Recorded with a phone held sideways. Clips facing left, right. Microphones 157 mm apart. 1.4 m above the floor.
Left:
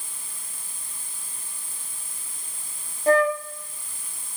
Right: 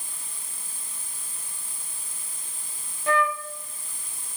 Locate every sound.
0.0 s an insect: 20° right (ahead or behind), 6.5 m
3.1 s a flute: 40° left (ahead or behind), 0.6 m